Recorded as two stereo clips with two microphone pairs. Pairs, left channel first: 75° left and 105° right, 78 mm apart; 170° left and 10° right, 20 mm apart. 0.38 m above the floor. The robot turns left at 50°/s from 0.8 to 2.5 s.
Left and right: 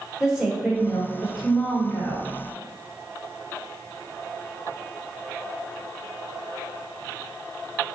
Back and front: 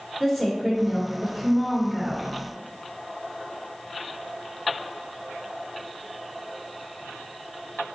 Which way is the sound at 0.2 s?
170° right.